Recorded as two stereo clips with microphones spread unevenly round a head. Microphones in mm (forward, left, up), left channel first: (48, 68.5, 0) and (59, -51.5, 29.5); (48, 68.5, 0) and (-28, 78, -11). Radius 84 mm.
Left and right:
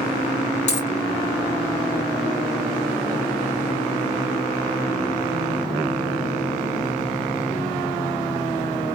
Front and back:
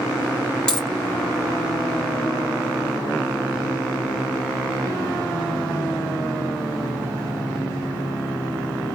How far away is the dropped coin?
About 1.8 m.